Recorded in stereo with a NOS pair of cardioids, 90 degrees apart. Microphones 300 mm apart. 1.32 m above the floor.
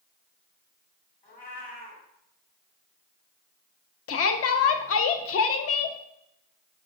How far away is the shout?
About 0.6 m.